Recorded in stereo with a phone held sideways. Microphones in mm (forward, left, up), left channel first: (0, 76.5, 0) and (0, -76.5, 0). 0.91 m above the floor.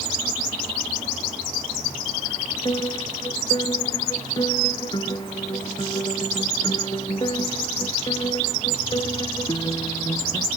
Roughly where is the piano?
Left.